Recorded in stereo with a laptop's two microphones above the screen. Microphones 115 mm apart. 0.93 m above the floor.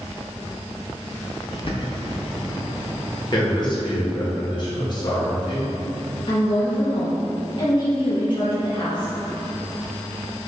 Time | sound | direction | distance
1.5 | a bird | 50° left (ahead or behind) | 0.7 m
3.3 | a man speaking | 40° left (ahead or behind) | 1.1 m
6.3 | a woman speaking | 45° left (ahead or behind) | 0.8 m